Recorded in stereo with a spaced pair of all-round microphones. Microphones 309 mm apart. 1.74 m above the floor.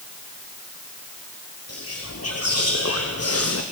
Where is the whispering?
50° left (ahead or behind), 1.0 m.